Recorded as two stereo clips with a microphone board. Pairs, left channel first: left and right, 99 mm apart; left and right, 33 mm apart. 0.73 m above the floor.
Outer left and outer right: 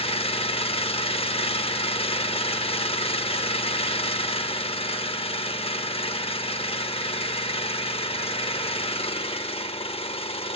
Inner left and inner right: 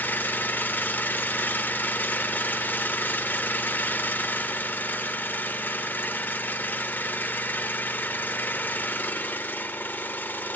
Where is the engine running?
80° left, 0.8 m.